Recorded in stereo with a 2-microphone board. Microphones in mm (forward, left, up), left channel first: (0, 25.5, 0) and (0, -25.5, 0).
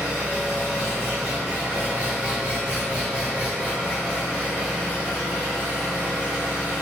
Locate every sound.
0.0 s an engine running: 40° right (ahead or behind), 1.6 m